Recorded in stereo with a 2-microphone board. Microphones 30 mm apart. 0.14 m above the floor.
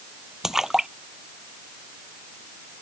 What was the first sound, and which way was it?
A splash, 15° right (ahead or behind).